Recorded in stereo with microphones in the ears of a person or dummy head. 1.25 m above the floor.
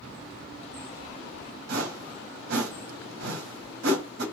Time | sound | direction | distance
1.7 | a whoosh | 65° right (ahead or behind) | 1.8 m